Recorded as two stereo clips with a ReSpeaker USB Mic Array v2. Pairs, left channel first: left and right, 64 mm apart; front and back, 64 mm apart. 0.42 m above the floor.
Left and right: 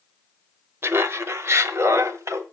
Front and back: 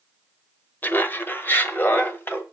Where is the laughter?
50° right, 1.2 m; by 2.4 s 55° right, 2.0 m.